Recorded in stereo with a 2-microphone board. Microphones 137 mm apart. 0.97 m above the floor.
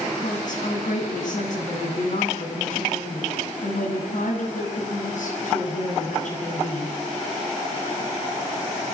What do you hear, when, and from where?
0.2 s a woman speaking: 65° left (ahead or behind), 7.5 m